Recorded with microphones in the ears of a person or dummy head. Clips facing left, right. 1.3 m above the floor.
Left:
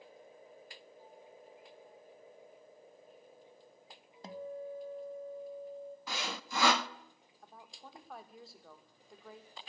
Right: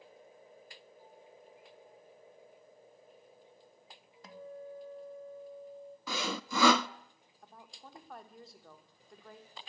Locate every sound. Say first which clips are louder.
4.2 s a guitar: left 4 dB; 30° left (ahead or behind), 1.3 m
6.1 s sawing: right 6 dB; 80° right, 0.8 m
7.4 s a woman speaking: even; centre (ahead or behind), 3 m